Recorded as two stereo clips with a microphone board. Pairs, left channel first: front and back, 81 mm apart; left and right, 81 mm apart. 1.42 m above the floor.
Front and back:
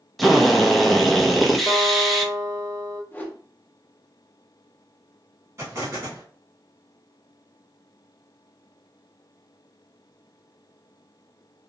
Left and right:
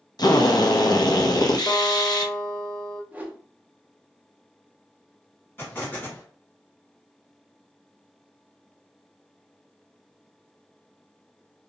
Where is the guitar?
60° left, 1.2 m.